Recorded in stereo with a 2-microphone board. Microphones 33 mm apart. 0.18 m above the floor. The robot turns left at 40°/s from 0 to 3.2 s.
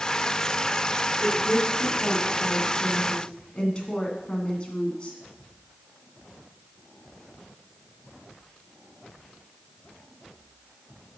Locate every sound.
1.2 s a woman speaking: 30° left (ahead or behind), 1.8 m